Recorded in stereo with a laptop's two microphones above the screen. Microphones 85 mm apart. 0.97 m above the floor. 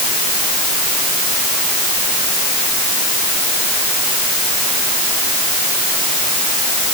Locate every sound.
Only background noise.